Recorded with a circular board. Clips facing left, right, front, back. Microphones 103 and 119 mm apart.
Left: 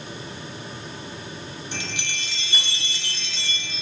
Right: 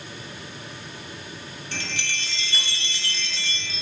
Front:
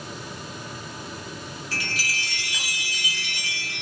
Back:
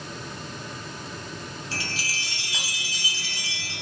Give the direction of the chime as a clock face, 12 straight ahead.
7 o'clock.